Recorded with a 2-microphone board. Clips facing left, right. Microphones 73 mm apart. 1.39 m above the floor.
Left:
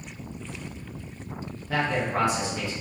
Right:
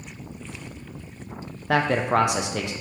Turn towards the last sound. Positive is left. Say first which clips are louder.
# right 5 dB
turn(degrees=-70)  # may be behind; listen again after turning